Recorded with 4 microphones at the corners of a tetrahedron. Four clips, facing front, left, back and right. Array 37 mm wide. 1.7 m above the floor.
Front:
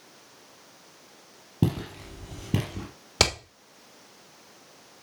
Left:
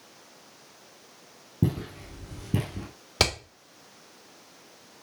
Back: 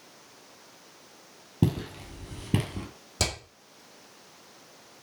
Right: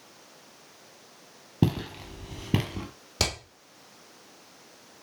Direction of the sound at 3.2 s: 35° left.